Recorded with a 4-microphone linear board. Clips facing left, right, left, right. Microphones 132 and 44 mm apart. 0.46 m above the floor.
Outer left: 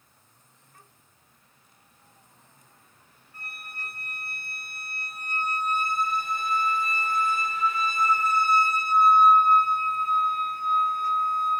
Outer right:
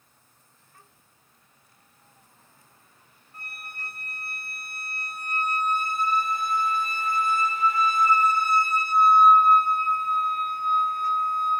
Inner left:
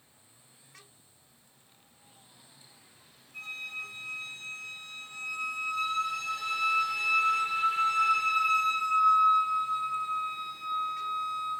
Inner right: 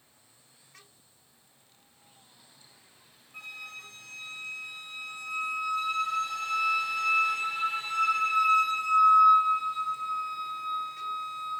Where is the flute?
20° right (ahead or behind), 1.4 m.